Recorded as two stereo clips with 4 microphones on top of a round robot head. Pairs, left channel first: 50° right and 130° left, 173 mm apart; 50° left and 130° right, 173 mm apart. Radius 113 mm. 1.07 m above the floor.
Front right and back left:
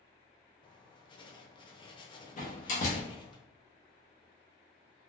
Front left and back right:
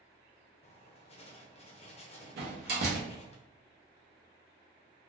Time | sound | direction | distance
0.6 | writing | 5° left | 0.7 m
2.4 | a door slam | 95° right | 0.9 m